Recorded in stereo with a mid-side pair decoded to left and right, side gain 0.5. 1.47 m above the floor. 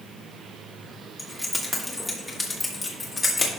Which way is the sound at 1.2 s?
5° left.